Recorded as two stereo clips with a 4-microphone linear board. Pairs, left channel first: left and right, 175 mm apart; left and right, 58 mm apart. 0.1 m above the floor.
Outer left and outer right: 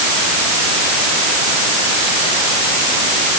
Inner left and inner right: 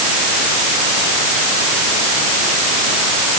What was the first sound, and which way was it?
Only background noise.